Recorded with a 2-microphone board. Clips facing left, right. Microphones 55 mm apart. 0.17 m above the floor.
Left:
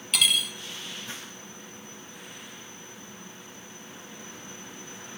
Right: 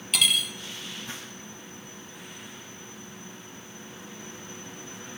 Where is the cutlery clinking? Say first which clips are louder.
Even; centre (ahead or behind), 0.7 m.